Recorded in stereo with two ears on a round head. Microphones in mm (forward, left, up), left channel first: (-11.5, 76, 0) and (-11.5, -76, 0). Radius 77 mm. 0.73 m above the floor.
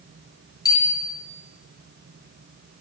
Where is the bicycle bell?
25° left (ahead or behind), 8.5 m.